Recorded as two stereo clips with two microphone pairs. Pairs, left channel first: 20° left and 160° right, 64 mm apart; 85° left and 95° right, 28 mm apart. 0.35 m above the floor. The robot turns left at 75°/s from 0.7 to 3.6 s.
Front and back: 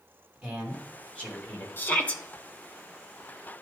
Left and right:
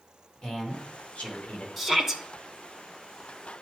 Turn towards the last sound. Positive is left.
turn(degrees=-145)